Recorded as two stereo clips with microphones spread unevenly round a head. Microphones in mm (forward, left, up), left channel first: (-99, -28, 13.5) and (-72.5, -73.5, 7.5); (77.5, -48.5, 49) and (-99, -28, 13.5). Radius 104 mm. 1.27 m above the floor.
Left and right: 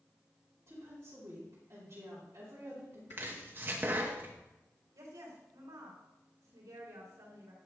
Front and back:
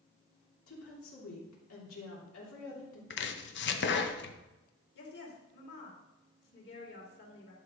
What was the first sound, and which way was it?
A woman speaking, 10° left.